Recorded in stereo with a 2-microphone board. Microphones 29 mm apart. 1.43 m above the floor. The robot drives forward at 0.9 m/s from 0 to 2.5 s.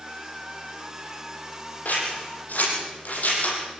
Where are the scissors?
75° left (ahead or behind), 7.5 m.